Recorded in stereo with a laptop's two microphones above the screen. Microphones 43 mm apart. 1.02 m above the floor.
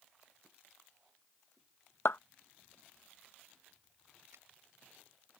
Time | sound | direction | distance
2.0 | a clap | 70° left (ahead or behind) | ?
4.3 | a finger snap | 85° right | ?